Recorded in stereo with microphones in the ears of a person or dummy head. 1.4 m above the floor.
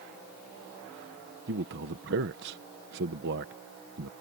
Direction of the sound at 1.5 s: 55° right (ahead or behind).